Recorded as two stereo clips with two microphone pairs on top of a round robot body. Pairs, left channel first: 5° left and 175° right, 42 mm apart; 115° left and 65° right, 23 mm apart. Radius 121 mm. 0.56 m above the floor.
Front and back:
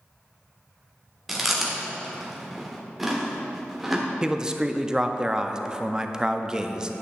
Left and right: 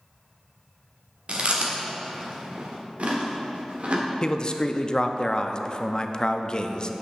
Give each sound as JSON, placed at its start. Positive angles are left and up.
{"t": 1.3, "sound": "chewing", "azimuth_deg": -95, "distance_m": 1.5}
{"t": 4.2, "sound": "a man speaking", "azimuth_deg": 140, "distance_m": 0.7}